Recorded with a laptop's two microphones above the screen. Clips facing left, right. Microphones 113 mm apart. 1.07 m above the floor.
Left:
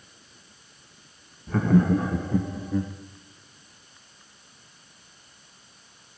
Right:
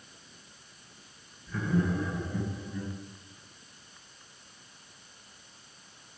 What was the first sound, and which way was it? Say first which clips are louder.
Laughter: left 9 dB; 60° left (ahead or behind).